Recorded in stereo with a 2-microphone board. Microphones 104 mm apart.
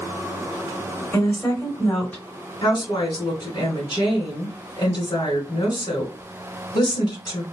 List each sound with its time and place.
1.1 s a woman speaking: 20° left (ahead or behind), 1.8 m
2.6 s a woman speaking: 40° left (ahead or behind), 1.4 m